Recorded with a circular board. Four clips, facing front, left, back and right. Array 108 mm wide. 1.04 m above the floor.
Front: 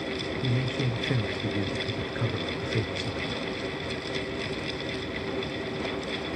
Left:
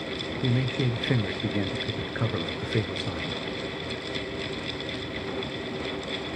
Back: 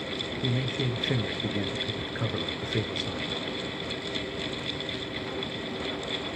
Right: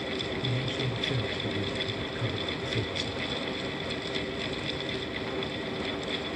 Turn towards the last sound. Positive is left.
turn(degrees=100)